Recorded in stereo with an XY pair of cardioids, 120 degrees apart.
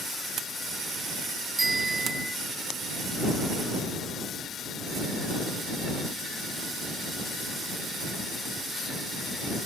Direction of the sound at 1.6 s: 20° right.